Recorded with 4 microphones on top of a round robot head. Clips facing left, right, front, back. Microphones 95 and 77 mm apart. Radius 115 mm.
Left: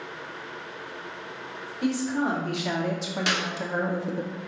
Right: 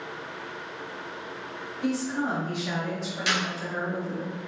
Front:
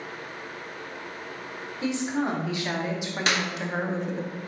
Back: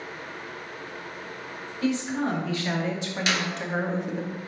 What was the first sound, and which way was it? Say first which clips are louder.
A woman speaking: left 2 dB, back 1 dB; 70° left.